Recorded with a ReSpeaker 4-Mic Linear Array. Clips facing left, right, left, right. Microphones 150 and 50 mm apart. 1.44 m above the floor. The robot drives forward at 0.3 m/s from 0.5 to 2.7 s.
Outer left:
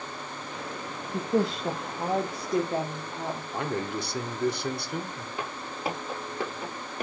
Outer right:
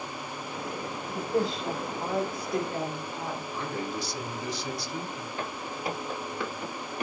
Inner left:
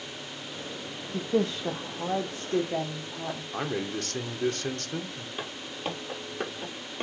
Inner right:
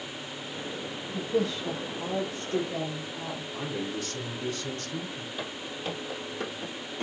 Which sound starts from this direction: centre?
Footsteps, at 5.4 s.